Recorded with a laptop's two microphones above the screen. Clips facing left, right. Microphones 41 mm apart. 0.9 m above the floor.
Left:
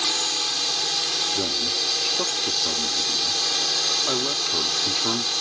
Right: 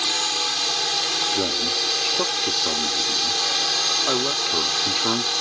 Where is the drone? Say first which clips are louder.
Right 2 dB; 20° right (ahead or behind).